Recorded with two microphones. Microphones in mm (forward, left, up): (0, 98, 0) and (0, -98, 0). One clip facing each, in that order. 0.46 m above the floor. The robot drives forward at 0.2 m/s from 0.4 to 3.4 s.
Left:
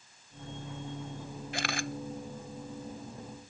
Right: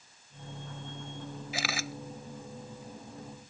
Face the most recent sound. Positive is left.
turn(degrees=-5)  # may be behind; listen again after turning